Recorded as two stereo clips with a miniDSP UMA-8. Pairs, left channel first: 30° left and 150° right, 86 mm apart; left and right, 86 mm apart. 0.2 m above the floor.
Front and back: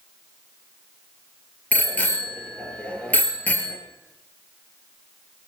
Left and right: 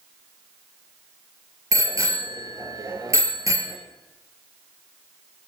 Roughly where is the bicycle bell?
Ahead right.